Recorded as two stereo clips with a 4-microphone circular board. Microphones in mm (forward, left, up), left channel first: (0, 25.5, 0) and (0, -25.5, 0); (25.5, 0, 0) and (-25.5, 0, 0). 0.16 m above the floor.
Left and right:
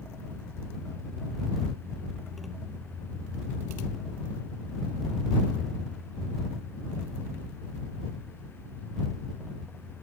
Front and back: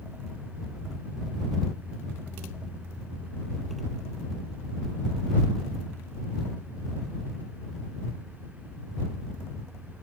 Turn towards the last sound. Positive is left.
No sound to turn to.